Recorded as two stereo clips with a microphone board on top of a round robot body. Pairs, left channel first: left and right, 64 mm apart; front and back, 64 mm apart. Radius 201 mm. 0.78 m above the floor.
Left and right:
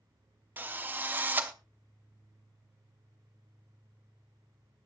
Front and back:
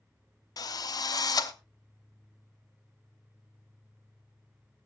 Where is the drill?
25° right, 0.9 m.